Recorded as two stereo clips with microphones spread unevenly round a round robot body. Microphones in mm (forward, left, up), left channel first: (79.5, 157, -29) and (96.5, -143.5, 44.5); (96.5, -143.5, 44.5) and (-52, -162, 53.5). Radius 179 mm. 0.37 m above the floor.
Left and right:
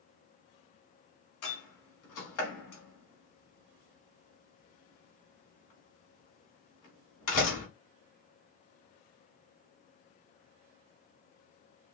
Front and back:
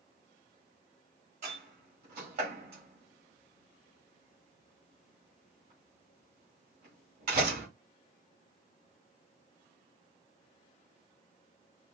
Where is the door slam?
130° left, 3 m.